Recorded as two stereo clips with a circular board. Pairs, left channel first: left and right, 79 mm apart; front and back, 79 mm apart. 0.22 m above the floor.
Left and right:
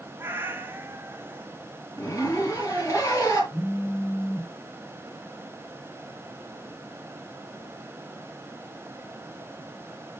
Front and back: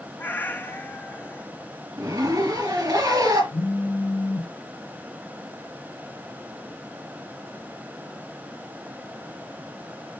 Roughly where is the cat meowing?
Ahead right.